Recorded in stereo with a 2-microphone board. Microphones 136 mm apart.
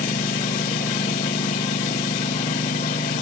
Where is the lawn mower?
85° left.